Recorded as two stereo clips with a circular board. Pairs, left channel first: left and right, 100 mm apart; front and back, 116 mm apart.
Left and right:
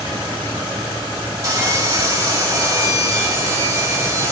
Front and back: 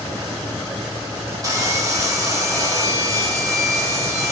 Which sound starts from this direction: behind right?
Sawing, at 1.4 s.